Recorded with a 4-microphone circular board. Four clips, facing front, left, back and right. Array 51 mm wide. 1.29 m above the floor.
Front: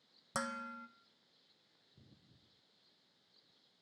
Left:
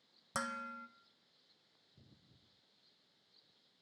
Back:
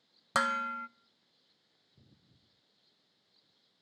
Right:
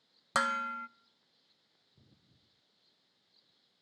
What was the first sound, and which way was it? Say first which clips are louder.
Dishes clattering: right 10 dB, back 11 dB; 140° right.